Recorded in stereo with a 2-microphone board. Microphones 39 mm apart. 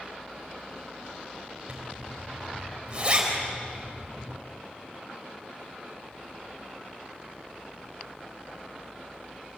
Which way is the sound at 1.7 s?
25° right (ahead or behind).